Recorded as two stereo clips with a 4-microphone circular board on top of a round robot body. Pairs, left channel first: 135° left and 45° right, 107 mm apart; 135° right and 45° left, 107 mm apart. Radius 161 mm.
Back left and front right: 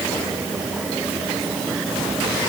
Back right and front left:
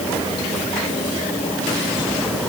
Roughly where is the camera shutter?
I don't hear a camera shutter.